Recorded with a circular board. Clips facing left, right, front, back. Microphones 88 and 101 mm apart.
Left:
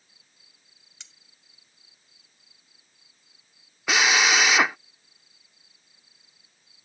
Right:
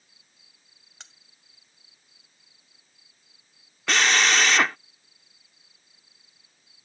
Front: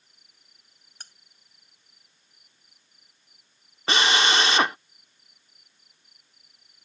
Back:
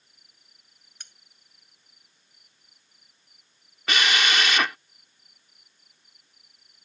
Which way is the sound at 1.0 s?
50° right.